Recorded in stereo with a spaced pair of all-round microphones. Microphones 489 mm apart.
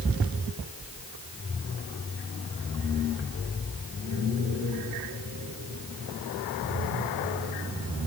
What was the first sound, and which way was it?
Only background noise.